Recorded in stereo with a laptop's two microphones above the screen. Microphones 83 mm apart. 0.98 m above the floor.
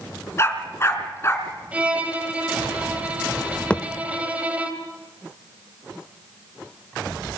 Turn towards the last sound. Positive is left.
turn(degrees=15)  # may be behind; listen again after turning